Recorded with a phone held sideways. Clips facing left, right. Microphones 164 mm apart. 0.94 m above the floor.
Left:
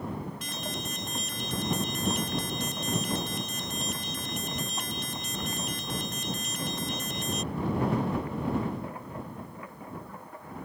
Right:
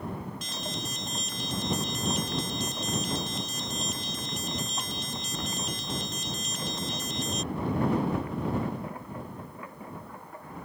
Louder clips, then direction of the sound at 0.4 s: Even; 55° left (ahead or behind).